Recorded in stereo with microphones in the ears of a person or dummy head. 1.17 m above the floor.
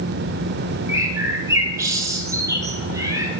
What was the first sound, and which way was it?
A bird, 10° right (ahead or behind).